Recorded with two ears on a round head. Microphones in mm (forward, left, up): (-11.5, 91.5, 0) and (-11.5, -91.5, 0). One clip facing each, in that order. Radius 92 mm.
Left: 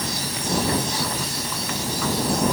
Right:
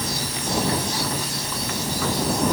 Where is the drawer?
No drawer in this recording.